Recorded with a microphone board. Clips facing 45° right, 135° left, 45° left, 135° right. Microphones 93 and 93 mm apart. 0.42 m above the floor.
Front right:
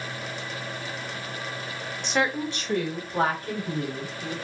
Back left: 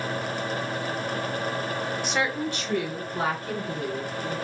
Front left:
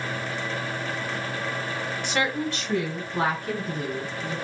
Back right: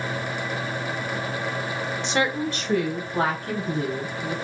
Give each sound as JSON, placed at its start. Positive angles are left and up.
{"t": 2.0, "sound": "a woman speaking", "azimuth_deg": -145, "distance_m": 0.8}